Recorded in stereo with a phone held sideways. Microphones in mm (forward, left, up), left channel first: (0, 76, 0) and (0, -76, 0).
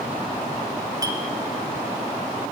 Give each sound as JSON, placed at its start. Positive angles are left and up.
{"t": 1.0, "sound": "a clink", "side_deg": -25, "distance_m": 1.7}